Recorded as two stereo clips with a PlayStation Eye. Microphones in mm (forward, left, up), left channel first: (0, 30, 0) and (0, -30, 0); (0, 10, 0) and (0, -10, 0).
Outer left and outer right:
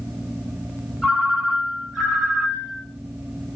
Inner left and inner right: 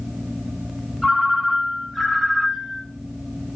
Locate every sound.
1.0 s a ringtone: centre (ahead or behind), 1.2 m